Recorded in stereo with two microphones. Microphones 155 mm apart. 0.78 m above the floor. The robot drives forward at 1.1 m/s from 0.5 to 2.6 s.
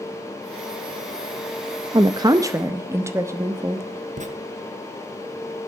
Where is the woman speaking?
25° right (ahead or behind), 0.6 m; by 3.9 s 20° right (ahead or behind), 0.8 m.